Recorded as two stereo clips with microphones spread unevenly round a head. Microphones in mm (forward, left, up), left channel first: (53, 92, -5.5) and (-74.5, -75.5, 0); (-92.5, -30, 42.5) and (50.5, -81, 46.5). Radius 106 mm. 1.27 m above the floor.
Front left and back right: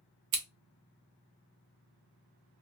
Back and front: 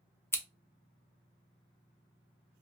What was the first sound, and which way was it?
Scissors, 125° right.